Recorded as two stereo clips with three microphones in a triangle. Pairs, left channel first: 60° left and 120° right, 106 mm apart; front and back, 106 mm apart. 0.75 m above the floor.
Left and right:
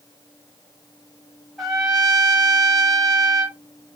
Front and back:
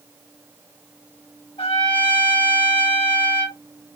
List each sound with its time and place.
1.6 s a trumpet: 30° right, 1.1 m